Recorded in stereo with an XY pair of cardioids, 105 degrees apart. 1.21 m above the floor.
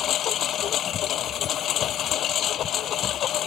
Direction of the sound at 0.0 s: 65° left.